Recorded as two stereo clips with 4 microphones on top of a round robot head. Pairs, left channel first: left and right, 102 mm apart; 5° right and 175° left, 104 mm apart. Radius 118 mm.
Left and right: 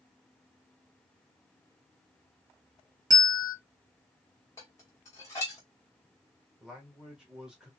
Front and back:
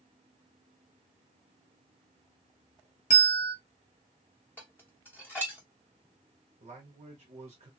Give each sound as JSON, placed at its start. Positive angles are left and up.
{"t": 3.1, "sound": "a bell", "azimuth_deg": -30, "distance_m": 0.8}
{"t": 4.6, "sound": "dishes clattering", "azimuth_deg": 45, "distance_m": 0.6}
{"t": 6.6, "sound": "a man speaking", "azimuth_deg": -175, "distance_m": 1.3}